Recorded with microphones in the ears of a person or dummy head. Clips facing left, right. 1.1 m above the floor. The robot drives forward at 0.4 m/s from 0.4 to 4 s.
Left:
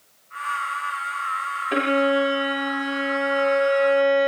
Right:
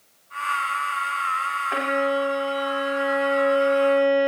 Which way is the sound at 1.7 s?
40° left (ahead or behind).